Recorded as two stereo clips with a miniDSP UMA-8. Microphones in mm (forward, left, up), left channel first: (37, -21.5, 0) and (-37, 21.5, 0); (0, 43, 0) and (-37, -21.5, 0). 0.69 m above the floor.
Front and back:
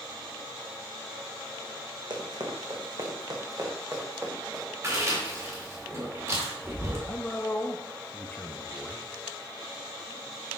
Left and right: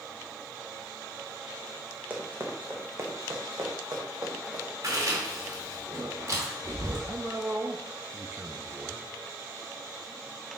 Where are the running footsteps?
175° left, 1.9 m; by 4.7 s 150° right, 2.5 m.